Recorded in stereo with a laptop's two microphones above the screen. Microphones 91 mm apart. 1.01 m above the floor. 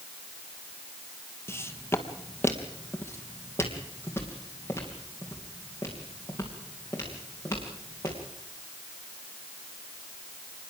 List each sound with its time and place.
1.5 s footsteps: 25° left (ahead or behind), 1.3 m